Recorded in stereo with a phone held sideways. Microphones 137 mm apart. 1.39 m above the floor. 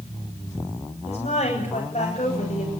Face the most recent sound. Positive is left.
turn(degrees=50)  # may be behind; listen again after turning